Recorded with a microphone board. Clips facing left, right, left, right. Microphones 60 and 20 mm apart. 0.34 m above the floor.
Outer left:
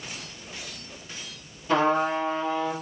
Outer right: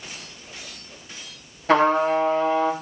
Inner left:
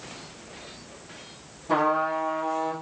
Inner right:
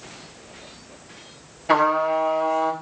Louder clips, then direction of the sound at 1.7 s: Outer right 5 dB, inner right 5 dB; 85° right.